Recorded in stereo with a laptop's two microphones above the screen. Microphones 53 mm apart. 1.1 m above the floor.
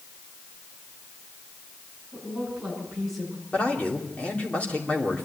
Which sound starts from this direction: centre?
A woman speaking, at 2.1 s.